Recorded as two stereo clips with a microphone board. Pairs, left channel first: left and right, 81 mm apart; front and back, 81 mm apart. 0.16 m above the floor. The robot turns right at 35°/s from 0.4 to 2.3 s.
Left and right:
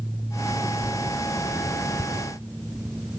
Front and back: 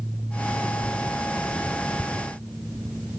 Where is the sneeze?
I don't hear a sneeze.